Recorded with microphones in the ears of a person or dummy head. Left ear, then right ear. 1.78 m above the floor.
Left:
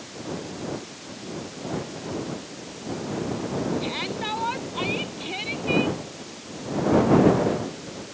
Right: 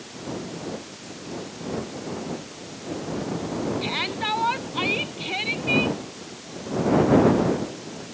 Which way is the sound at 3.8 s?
25° right (ahead or behind).